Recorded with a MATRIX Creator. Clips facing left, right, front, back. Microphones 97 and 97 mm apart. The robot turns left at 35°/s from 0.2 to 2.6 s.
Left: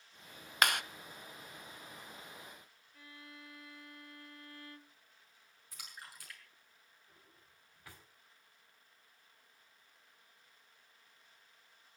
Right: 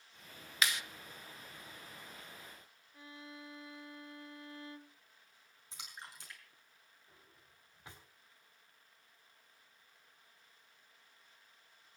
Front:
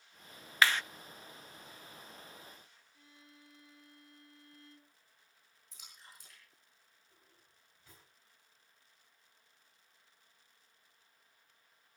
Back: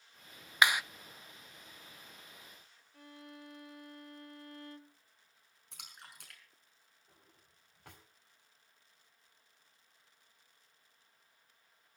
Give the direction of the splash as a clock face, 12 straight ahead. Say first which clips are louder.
Right 1 dB, back 4 dB; 5 o'clock.